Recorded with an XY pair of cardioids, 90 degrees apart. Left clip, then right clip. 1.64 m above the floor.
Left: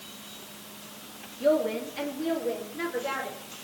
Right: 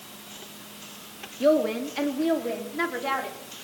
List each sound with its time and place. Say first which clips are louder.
1.4 s a woman speaking: right 3 dB; 60° right, 3.5 m; by 3.4 s 70° right, 5.5 m